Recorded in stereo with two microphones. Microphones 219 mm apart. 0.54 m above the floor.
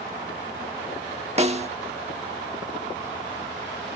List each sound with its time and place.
1.4 s a snare drum: 30° right (ahead or behind)